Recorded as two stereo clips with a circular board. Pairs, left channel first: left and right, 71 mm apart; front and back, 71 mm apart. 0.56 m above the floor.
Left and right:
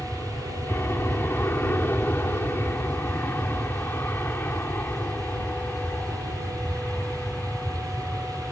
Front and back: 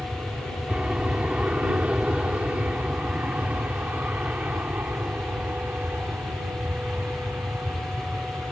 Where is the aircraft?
115° left; by 8.5 s 145° left.